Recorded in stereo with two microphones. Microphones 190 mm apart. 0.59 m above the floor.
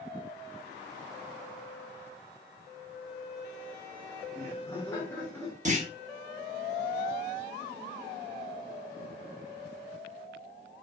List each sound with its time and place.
4.3 s laughter: 15° left (ahead or behind), 1.6 m; by 5.5 s 5° left (ahead or behind), 2 m
5.7 s a clunk: 40° right (ahead or behind), 1.1 m